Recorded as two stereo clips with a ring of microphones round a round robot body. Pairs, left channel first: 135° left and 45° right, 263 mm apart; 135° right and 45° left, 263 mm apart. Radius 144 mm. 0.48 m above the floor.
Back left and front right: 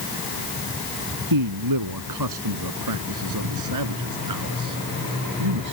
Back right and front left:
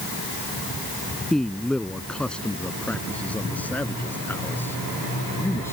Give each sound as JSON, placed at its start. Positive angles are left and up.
{"t": 1.3, "sound": "a man speaking", "azimuth_deg": -45}